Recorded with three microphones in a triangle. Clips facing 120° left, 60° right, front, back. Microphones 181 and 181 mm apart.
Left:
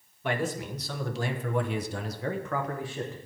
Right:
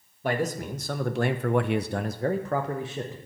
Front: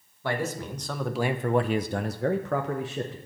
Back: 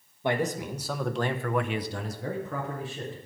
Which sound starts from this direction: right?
A man speaking, at 0.2 s.